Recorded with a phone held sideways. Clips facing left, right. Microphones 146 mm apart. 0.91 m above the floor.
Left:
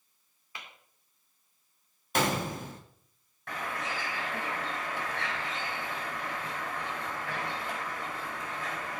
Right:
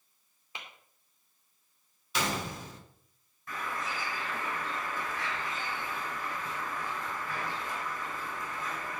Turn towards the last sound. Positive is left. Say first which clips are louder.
# left 1 dB
turn(degrees=85)